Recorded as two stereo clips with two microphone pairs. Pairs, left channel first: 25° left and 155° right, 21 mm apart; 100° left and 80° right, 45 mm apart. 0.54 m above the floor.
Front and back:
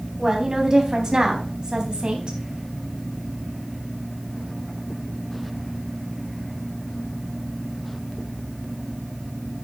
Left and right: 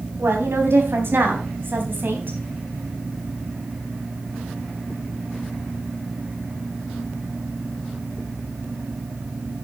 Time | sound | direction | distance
0.2 | a woman speaking | 100° right | 4 m